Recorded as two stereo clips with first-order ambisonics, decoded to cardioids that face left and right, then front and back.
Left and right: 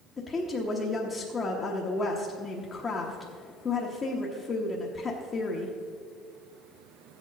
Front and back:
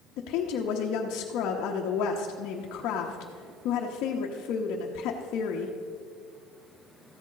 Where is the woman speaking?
25° left, 1.0 m.